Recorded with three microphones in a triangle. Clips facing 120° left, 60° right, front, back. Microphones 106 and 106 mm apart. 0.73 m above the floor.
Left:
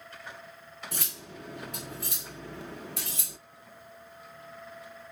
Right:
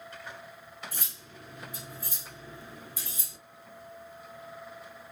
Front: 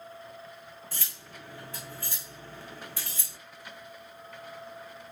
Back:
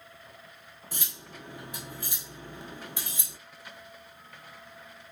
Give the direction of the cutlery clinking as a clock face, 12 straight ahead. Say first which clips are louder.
Left 4 dB, back 1 dB; 8 o'clock.